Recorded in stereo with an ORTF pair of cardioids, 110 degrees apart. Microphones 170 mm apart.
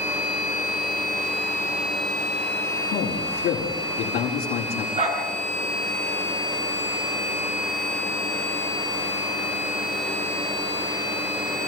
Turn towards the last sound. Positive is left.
turn(degrees=-45)